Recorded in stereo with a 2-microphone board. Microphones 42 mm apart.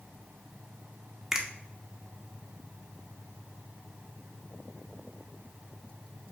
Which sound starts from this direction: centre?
A finger snap, at 1.3 s.